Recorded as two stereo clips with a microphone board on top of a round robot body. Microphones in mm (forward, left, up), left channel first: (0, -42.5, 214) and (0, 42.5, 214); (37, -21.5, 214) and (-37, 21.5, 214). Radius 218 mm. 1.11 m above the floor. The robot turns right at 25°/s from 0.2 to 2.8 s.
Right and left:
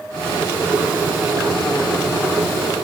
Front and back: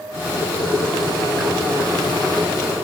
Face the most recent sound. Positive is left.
turn(degrees=65)